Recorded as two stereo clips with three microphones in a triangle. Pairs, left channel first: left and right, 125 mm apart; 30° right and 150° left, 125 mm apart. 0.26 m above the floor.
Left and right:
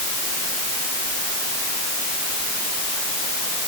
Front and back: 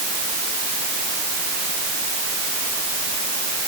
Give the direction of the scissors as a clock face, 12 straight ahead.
I don't hear scissors.